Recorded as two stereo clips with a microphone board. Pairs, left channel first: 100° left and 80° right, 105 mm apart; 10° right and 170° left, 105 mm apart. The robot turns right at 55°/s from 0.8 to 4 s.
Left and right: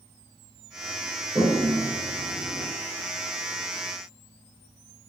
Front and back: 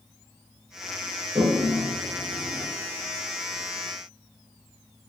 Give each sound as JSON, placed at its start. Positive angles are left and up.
{"t": 1.4, "sound": "a toilet flushing", "azimuth_deg": -135, "distance_m": 7.0}